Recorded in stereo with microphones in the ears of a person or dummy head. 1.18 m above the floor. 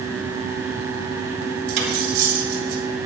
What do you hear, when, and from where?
1.7 s cutlery clinking: 60° right (ahead or behind), 3.5 m